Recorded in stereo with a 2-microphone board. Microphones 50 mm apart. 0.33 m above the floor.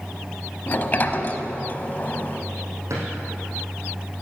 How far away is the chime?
No chime in this recording.